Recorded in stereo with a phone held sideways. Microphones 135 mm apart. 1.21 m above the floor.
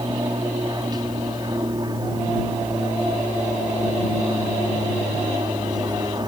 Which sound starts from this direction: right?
An aircraft, at 0.0 s.